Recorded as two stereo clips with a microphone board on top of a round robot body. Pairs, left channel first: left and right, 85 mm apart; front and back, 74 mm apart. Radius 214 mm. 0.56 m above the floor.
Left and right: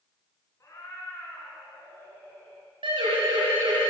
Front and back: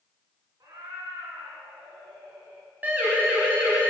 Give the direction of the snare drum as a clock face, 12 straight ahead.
I don't hear a snare drum.